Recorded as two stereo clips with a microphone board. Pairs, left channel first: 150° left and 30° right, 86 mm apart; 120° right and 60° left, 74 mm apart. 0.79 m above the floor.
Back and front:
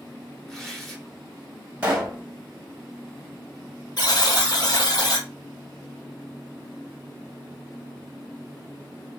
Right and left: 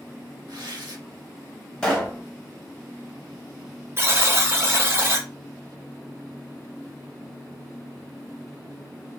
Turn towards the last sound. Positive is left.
turn(degrees=115)